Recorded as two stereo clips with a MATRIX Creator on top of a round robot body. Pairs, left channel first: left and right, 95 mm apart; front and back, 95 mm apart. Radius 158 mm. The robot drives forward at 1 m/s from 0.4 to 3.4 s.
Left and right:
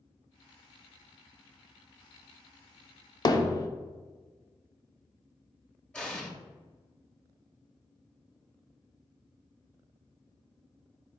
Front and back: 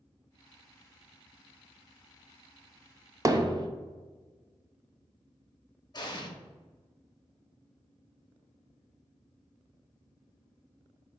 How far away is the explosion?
About 1.2 m.